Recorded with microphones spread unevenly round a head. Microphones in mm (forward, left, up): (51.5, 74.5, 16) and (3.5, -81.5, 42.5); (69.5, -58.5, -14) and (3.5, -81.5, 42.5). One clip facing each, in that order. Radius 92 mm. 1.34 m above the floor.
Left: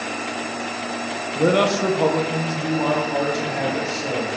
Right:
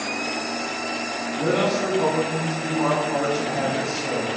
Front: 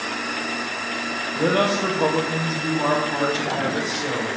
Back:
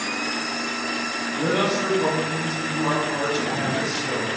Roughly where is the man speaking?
Ahead left.